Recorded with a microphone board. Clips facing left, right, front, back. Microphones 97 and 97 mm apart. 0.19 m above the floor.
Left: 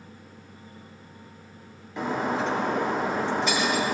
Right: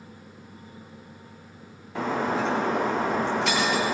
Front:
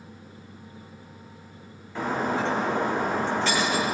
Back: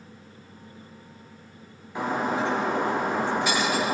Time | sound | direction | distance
1.9 | breaking glass | 100° right | 8 m